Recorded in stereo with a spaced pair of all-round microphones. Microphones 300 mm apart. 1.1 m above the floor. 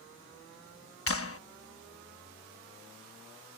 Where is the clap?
50° left (ahead or behind).